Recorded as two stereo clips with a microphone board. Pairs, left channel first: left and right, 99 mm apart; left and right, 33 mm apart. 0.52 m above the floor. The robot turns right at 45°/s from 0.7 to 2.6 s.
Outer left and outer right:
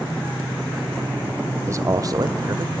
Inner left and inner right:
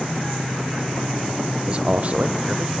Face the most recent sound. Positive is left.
turn(degrees=-90)